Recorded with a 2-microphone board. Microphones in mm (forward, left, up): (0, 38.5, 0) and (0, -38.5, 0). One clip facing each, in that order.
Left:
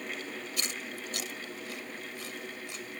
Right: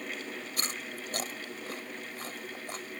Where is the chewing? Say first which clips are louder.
Even; 40° right (ahead or behind).